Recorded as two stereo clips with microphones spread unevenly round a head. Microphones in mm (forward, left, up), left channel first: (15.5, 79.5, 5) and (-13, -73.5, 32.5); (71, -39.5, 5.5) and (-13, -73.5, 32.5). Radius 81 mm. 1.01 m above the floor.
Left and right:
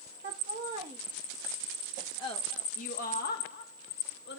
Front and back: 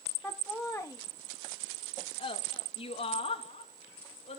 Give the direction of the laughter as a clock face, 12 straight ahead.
2 o'clock.